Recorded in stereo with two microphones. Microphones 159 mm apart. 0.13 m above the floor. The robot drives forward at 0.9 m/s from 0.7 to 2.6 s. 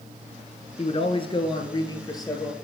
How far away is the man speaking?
About 1.4 m.